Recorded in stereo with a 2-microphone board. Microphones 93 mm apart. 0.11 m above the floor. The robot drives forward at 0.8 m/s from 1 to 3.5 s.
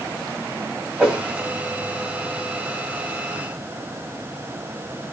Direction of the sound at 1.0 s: 20° right (ahead or behind).